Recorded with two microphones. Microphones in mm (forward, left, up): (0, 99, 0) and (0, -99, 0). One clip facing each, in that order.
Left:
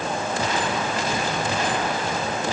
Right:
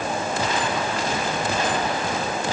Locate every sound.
Only background noise.